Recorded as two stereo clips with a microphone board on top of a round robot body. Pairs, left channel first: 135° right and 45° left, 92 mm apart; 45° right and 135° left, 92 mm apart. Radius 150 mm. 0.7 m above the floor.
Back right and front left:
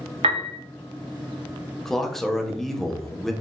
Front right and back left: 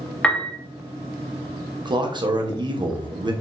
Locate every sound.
0.2 s a piano: 35° left, 1.1 m
1.9 s a man speaking: 140° left, 1.6 m